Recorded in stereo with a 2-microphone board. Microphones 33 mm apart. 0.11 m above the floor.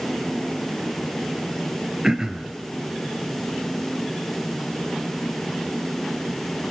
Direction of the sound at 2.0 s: 20° right (ahead or behind).